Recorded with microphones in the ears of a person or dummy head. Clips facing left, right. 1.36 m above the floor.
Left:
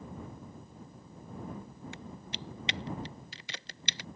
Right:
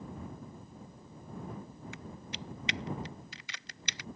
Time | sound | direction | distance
1.9 | typing on a keyboard | 30° left (ahead or behind) | ?